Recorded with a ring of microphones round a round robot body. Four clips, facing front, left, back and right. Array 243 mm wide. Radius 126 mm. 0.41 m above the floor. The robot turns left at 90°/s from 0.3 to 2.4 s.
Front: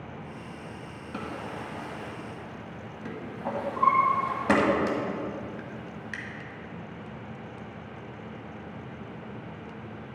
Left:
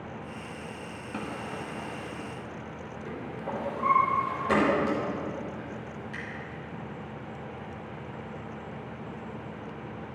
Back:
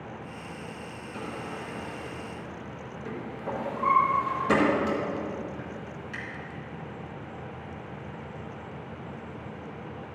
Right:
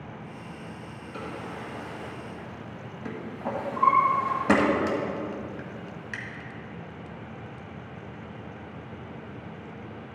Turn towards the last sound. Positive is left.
turn(degrees=-50)